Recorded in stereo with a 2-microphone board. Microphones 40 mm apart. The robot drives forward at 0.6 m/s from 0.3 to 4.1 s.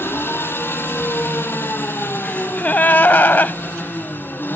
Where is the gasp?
35° left (ahead or behind), 0.7 m; by 3.6 s 50° left (ahead or behind), 0.5 m.